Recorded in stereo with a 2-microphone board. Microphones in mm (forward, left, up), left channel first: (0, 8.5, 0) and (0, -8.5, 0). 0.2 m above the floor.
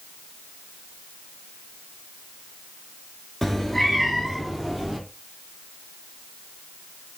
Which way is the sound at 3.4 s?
20° left (ahead or behind).